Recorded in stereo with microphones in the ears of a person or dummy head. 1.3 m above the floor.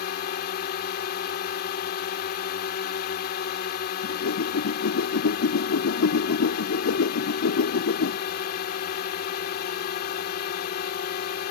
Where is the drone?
50° left (ahead or behind).